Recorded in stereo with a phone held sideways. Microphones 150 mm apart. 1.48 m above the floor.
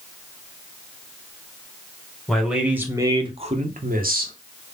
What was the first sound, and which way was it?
A man speaking, centre (ahead or behind).